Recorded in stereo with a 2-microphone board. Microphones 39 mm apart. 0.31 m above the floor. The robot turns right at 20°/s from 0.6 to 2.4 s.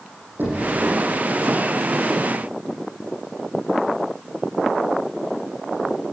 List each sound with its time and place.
0.4 s knocking: 55° right (ahead or behind), 8.5 m